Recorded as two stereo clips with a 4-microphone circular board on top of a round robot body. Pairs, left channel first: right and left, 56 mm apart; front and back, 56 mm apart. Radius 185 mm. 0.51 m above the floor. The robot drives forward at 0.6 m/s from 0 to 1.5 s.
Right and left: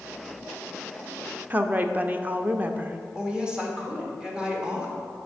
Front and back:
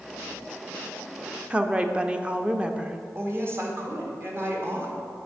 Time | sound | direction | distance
1.5 | a woman speaking | 125° left | 0.7 m
3.1 | a woman speaking | 160° left | 1.6 m